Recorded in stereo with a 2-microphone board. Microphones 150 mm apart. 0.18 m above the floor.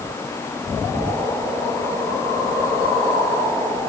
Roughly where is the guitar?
I don't hear a guitar.